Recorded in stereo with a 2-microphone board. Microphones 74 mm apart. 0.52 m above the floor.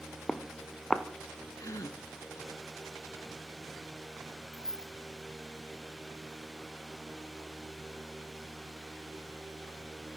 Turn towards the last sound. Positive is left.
turn(degrees=10)  # may be behind; listen again after turning